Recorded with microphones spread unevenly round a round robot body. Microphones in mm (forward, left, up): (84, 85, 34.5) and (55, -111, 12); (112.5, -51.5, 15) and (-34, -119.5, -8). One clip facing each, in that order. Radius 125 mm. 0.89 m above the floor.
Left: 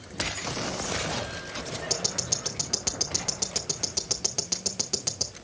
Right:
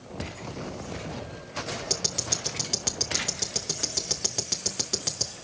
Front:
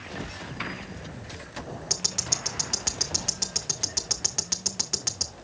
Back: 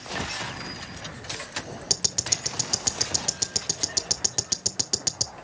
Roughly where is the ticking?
Behind.